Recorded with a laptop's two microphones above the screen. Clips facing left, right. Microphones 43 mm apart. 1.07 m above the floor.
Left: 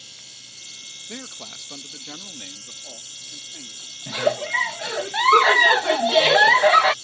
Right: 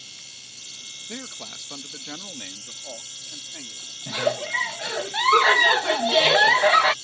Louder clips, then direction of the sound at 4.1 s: Left 2 dB; 15° left (ahead or behind).